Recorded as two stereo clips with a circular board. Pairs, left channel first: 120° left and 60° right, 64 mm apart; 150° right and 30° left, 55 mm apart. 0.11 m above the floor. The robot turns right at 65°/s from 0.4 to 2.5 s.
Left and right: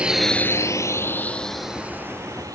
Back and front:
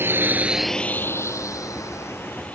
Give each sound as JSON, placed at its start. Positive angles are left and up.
{"t": 0.0, "sound": "a drone", "azimuth_deg": 5}